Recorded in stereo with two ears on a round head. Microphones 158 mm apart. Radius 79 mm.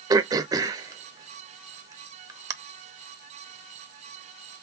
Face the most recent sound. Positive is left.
turn(degrees=-20)  # may be behind; listen again after turning